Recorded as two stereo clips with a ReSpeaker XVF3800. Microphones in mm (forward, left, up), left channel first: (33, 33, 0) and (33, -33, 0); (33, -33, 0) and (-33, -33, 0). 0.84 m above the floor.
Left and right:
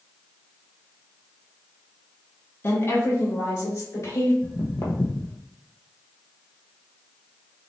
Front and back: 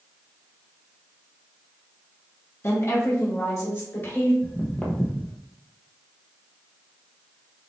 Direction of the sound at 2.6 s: 40° left.